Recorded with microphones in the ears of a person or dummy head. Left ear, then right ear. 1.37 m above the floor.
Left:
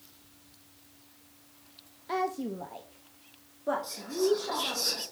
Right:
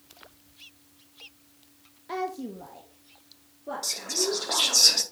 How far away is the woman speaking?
About 0.5 m.